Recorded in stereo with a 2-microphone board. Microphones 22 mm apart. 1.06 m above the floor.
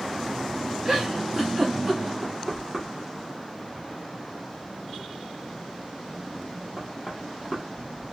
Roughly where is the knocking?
Right.